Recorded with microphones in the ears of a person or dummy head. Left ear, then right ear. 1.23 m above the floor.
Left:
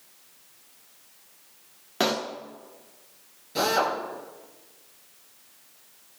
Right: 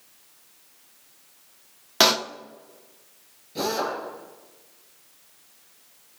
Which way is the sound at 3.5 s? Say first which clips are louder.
Left 3 dB; 40° left (ahead or behind).